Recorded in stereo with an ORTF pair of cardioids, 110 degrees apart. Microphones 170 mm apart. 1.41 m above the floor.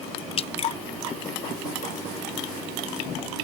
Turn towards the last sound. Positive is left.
turn(degrees=35)